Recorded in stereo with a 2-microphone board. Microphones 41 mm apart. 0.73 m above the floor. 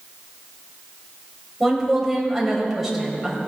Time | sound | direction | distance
1.6 | a woman speaking | 5° right (ahead or behind) | 4.5 m